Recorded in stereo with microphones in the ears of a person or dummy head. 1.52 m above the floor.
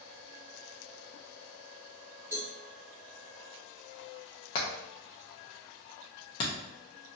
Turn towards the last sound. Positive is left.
turn(degrees=25)  # may be behind; listen again after turning